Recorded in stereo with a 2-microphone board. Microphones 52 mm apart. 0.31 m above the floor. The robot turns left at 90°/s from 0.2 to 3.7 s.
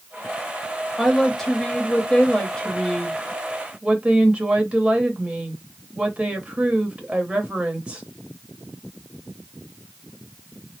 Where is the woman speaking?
Centre (ahead or behind), 1.0 m; by 8.0 s 20° right (ahead or behind), 1.0 m.